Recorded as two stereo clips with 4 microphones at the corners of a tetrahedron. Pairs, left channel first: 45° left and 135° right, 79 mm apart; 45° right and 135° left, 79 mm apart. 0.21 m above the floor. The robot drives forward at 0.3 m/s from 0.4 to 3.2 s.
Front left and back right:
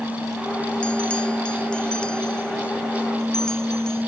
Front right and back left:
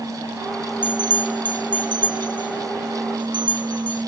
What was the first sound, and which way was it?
A bell, 120° left.